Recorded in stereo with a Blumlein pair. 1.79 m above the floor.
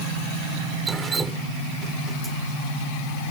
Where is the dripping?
20° right.